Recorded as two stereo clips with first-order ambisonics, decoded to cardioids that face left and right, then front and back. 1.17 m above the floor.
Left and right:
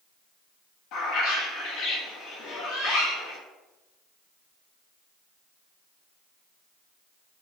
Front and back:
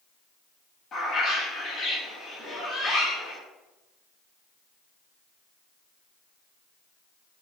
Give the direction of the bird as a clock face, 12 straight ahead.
10 o'clock.